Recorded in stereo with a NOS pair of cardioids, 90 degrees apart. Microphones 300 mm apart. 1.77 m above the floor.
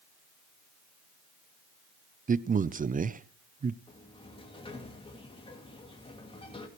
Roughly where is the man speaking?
Ahead right.